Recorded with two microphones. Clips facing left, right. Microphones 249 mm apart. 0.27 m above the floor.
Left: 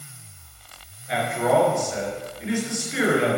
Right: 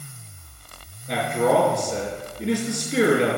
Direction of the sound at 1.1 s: 45° right (ahead or behind).